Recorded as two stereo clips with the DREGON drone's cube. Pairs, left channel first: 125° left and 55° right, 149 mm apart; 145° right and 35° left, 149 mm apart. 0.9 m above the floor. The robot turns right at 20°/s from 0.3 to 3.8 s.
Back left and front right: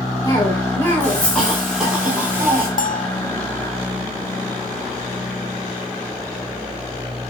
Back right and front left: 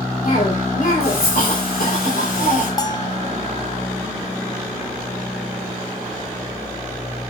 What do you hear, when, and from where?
0.2 s a cough: 175° right, 3.5 m; by 2.7 s 125° right, 3.5 m
2.8 s a bell: 150° left, 0.6 m; by 3.2 s 160° left, 0.6 m